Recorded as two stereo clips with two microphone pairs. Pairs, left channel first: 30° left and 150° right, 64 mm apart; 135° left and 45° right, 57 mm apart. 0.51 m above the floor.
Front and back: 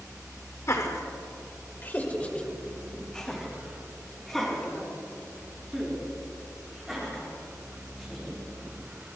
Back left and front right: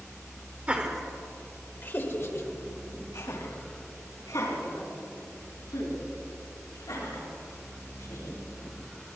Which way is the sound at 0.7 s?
15° left.